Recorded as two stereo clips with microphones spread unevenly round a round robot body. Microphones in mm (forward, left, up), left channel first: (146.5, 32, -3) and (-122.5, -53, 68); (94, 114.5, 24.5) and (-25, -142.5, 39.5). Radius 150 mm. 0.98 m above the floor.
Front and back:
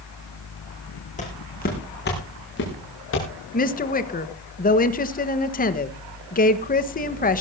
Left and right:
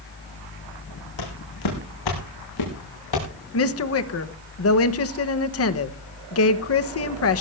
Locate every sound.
1.2 s footsteps: 85° left, 4 m; by 3.3 s 70° left, 6 m
3.5 s a woman speaking: 55° left, 1.2 m